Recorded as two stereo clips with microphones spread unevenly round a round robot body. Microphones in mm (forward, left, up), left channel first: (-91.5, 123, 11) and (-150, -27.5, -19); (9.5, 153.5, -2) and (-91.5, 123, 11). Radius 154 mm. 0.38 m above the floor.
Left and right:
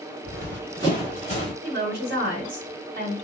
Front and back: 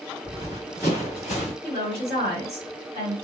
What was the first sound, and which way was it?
Running footsteps, 60° right.